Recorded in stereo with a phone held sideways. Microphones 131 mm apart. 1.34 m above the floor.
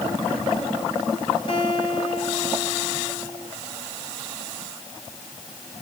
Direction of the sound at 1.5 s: 40° left (ahead or behind).